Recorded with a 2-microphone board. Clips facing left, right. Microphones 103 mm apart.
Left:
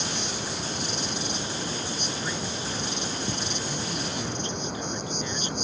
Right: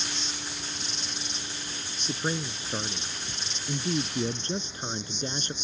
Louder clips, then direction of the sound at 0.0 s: Left 6 dB; 60° left (ahead or behind).